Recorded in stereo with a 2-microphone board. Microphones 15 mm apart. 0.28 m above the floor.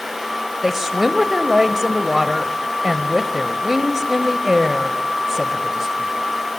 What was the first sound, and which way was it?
A woman speaking, 20° right (ahead or behind).